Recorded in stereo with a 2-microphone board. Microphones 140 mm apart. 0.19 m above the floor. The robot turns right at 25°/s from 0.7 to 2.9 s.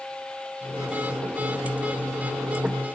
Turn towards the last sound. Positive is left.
No sound to turn to.